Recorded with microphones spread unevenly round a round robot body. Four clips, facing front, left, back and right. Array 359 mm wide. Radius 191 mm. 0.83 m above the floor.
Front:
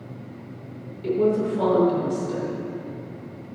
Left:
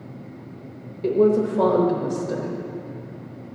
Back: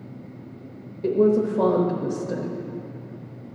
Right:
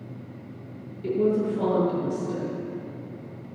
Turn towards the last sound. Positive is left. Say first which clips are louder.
# left 5 dB, back 2 dB
turn(degrees=145)